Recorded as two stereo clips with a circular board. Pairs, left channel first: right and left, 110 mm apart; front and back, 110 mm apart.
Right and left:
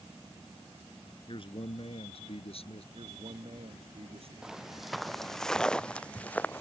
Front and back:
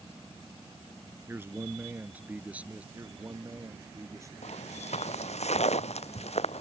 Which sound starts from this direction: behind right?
A man speaking, at 1.3 s.